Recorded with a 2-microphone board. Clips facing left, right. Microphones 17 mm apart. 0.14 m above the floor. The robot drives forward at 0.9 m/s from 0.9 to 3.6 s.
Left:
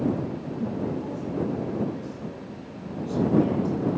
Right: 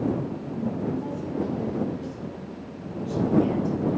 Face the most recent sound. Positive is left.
turn(degrees=5)  # may be behind; listen again after turning